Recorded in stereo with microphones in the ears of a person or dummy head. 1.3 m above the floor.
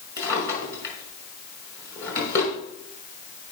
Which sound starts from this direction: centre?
A drawer, at 0.2 s.